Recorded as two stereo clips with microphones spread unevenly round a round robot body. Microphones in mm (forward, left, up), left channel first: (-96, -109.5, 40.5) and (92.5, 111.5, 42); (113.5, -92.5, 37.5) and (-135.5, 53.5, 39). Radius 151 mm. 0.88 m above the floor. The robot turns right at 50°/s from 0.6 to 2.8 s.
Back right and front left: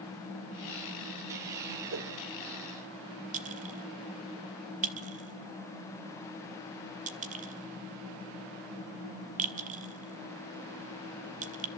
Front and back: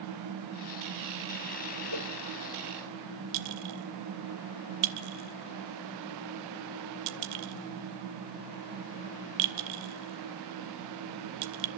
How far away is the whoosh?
About 2 m.